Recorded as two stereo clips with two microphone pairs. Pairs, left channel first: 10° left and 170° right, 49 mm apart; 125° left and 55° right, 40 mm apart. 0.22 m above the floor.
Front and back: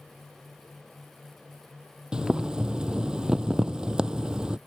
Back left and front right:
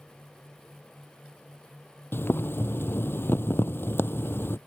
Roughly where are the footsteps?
I don't hear footsteps.